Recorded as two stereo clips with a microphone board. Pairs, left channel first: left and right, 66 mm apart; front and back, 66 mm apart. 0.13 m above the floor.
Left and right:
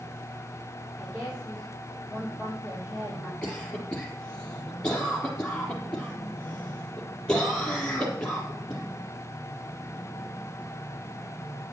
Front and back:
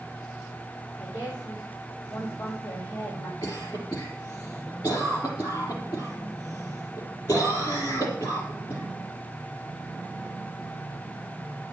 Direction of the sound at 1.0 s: 15° right.